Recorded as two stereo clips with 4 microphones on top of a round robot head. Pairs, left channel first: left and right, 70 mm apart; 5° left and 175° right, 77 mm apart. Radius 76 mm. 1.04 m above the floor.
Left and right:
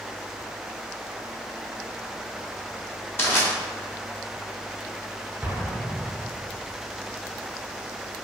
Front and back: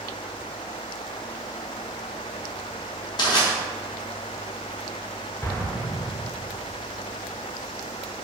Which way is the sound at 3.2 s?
30° left.